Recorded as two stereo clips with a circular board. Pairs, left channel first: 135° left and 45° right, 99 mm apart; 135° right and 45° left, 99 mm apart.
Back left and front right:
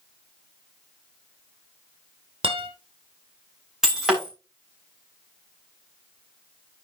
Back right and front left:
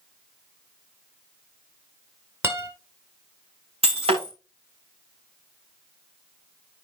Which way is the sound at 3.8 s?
40° left.